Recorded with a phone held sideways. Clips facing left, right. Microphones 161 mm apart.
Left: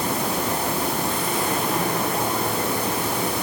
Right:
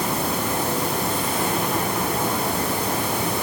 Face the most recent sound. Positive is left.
No sound to turn to.